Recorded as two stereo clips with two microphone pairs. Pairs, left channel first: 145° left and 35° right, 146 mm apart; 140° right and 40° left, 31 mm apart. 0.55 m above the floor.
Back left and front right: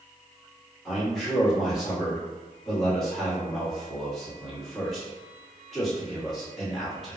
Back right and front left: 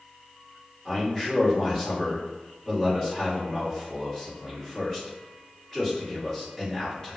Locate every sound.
0.8 s a man speaking: 130° right, 1.4 m